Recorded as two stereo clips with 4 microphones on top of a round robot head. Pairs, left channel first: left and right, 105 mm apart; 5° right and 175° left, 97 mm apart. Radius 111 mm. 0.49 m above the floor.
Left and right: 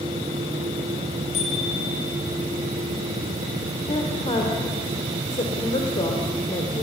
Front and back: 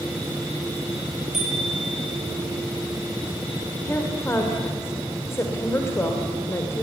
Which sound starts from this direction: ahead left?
A woman speaking, at 3.9 s.